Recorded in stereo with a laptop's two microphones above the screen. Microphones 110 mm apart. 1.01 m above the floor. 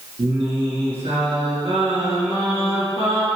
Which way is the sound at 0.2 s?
60° right (ahead or behind).